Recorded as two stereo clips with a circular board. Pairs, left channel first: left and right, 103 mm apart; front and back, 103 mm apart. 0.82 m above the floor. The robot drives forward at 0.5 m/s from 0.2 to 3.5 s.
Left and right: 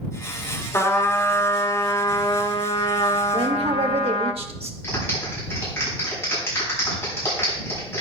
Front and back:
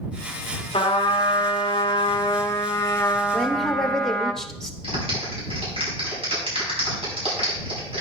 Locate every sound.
0.7 s a trumpet: 25° left, 1.6 m; by 4.3 s 85° left, 0.7 m
3.3 s a woman speaking: 85° right, 1.3 m; by 4.7 s 90° right, 1.3 m
4.8 s a clap: 155° left, 6 m